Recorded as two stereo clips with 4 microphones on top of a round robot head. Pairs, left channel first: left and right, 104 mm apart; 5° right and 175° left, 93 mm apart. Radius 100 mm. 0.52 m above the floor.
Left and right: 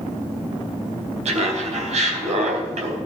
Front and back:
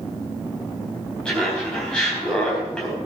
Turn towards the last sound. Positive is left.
turn(degrees=-85)